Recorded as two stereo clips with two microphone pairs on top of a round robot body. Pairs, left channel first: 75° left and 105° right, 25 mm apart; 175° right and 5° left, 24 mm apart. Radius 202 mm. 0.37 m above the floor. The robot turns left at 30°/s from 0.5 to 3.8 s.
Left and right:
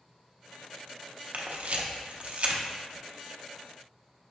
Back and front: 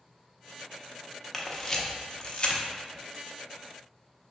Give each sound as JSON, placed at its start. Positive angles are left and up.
{"t": 1.3, "sound": "a camera shutter", "azimuth_deg": -95, "distance_m": 0.9}